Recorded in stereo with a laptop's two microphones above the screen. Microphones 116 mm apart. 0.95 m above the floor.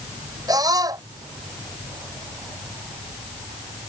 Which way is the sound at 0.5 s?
35° right (ahead or behind).